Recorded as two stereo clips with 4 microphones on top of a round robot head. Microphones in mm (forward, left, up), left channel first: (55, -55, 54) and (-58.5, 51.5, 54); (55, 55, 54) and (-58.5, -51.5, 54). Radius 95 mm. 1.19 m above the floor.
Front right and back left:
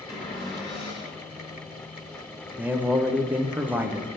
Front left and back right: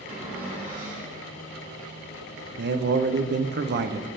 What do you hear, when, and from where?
0.1 s a cupboard door: 100° right, 3.5 m
2.6 s a man speaking: 145° right, 0.8 m